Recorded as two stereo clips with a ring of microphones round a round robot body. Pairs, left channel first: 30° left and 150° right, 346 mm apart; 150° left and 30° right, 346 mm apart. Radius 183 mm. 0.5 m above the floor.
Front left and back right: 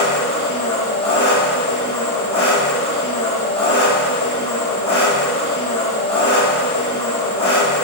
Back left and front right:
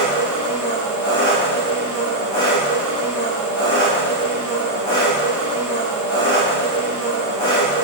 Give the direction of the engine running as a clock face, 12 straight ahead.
9 o'clock.